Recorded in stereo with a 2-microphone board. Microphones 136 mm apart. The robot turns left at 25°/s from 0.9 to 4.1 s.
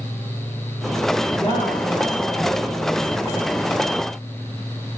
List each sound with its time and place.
1.3 s a woman speaking: 50° left, 7 m; by 3.4 s straight ahead, 7 m